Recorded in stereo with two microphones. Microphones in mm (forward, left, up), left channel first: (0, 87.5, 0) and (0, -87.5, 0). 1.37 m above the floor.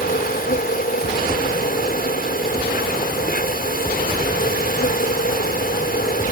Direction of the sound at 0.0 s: 60° left (ahead or behind).